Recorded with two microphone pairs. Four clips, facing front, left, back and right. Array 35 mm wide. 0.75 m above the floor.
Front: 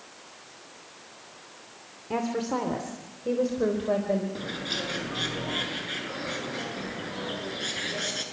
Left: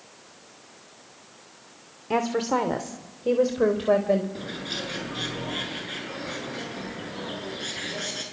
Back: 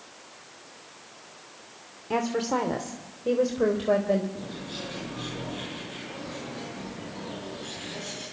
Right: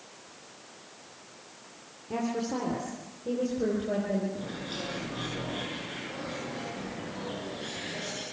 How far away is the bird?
About 8 m.